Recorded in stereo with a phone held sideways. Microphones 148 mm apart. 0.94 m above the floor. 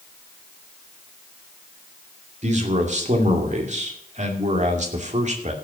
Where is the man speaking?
55° right (ahead or behind), 2 m.